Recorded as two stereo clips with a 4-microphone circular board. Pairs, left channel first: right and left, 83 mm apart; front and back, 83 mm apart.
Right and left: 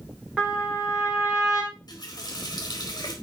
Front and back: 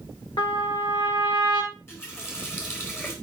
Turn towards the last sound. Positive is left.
turn(degrees=-55)